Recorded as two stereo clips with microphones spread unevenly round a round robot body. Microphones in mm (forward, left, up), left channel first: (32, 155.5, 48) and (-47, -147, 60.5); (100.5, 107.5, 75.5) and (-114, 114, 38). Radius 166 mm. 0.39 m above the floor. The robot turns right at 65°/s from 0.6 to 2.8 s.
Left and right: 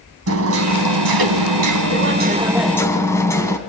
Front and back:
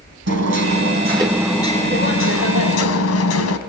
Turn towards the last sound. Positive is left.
turn(degrees=-5)